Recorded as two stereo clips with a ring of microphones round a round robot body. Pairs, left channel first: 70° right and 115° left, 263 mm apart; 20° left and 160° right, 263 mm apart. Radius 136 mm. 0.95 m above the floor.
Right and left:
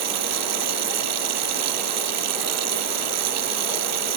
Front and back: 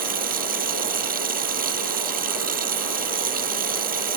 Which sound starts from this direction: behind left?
Running water, at 0.0 s.